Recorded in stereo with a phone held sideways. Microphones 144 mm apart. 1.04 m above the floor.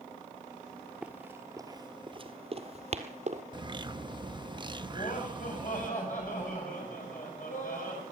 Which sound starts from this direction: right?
A bird, at 3.5 s.